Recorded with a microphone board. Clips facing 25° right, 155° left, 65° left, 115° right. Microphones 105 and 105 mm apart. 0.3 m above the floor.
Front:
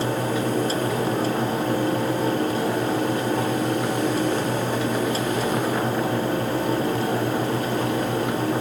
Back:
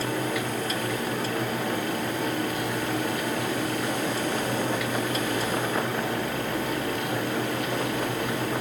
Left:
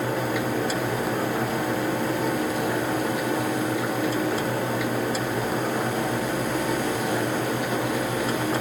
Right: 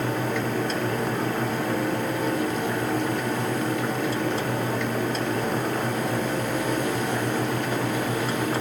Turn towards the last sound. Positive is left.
No sound to turn to.